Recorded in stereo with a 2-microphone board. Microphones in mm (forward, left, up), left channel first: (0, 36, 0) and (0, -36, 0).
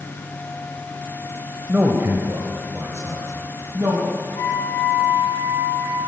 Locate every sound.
1.7 s a man speaking: 20° right (ahead or behind), 0.9 m; by 4.0 s 40° right (ahead or behind), 1.7 m
4.3 s a flute: 70° left (ahead or behind), 2.5 m